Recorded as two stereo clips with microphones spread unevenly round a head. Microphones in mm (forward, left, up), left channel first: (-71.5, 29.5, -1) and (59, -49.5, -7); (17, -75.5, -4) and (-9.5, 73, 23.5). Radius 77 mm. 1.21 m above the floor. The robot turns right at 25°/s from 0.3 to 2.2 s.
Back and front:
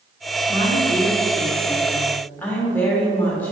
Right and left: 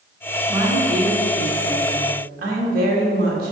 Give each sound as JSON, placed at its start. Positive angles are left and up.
{"t": 0.5, "sound": "a woman speaking", "azimuth_deg": 25, "distance_m": 1.7}